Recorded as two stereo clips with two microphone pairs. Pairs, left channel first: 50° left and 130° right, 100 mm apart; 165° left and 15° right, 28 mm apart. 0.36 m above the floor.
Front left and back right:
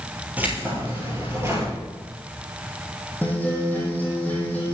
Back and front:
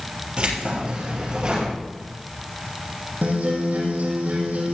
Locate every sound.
0.4 s keys jangling: 55° right, 5.5 m; by 1.7 s 70° right, 5 m
3.2 s a guitar: 20° right, 4.5 m